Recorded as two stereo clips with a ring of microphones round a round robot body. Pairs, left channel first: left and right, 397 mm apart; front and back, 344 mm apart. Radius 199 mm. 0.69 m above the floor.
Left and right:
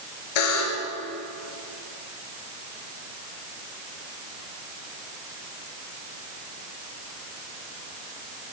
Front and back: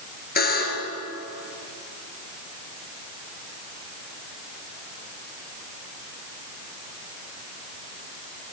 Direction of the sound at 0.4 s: 65° left.